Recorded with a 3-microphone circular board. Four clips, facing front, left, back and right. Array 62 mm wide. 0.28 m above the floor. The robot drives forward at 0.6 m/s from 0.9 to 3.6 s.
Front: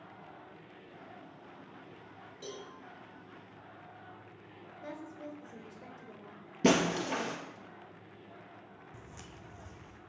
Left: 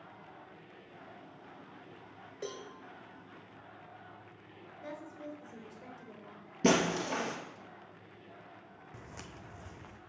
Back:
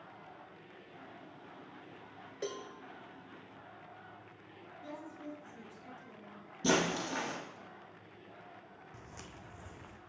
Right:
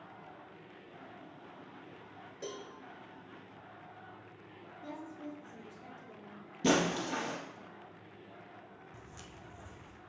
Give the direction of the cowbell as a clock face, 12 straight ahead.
7 o'clock.